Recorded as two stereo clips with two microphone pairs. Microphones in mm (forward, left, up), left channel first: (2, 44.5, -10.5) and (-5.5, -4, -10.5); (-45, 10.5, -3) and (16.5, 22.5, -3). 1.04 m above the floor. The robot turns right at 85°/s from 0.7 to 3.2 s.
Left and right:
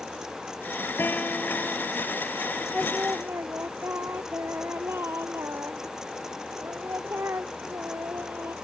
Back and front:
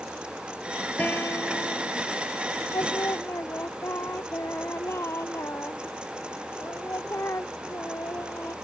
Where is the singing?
170° right; by 8.6 s 130° right.